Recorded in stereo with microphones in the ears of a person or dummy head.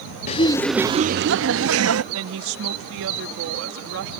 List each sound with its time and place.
0.3 s laughter: 40° left (ahead or behind); by 2.0 s 75° right (ahead or behind)
2.1 s a woman speaking: 80° right